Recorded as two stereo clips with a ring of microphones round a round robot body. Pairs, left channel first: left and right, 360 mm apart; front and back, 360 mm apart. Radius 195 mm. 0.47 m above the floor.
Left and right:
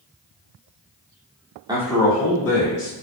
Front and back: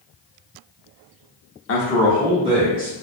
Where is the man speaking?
15° right, 0.8 m; by 2.9 s 145° left, 1.3 m.